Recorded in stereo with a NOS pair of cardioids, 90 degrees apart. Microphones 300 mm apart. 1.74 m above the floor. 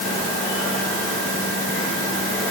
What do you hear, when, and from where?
Only background noise.